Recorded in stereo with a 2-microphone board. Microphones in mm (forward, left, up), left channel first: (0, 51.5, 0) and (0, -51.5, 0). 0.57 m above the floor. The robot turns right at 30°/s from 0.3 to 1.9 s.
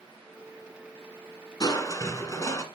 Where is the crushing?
40° left (ahead or behind), 1.4 m; by 2.6 s 30° left (ahead or behind), 1.4 m.